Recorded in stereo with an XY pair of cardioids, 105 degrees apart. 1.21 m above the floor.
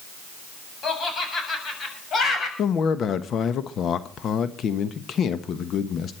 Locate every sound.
0.8 s laughter: 50° left, 7 m
2.6 s a man speaking: 60° left, 1.1 m